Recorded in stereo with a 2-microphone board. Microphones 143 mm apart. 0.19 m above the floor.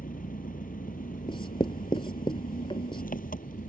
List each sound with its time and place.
0.0 s an engine running: 75° left (ahead or behind)
1.3 s writing: 35° left (ahead or behind)